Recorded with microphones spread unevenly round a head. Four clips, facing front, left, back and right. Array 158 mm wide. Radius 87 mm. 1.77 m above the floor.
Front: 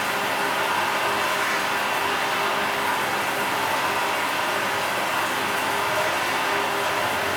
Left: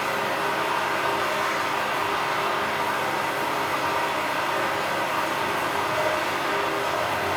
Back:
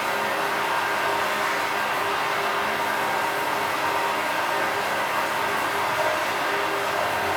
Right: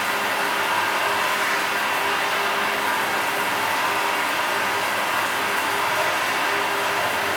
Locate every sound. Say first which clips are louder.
0.0 s running water: right 2 dB, even; 55° right, 1.4 m